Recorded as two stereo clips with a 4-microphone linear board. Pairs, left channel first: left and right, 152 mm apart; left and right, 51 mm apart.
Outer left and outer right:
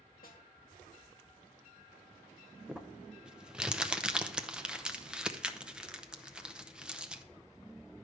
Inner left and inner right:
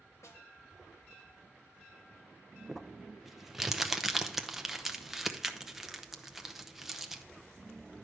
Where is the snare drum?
75° left (ahead or behind), 1.9 m.